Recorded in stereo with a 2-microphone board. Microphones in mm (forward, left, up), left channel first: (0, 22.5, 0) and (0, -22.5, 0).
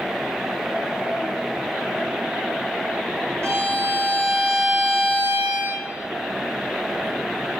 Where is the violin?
80° right, 1.8 m.